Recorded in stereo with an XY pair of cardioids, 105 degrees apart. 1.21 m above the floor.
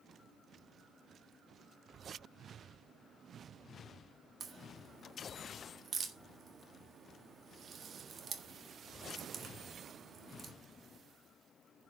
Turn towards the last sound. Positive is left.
turn(degrees=-45)